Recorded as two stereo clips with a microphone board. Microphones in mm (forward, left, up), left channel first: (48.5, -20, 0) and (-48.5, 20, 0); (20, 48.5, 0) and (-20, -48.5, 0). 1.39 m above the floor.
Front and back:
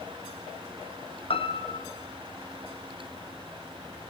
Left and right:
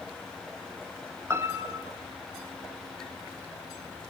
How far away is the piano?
About 1.2 m.